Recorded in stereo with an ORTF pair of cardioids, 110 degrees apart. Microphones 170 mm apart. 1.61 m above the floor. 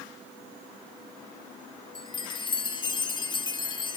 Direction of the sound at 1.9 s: 25° left.